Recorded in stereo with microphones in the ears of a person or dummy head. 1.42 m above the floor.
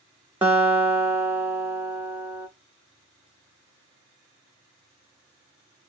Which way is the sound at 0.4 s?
10° right (ahead or behind).